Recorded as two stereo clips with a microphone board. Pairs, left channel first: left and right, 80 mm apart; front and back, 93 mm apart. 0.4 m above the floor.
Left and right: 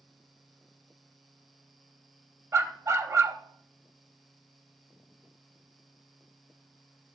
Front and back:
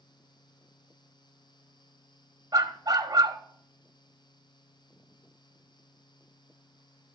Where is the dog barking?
135° right, 0.8 m.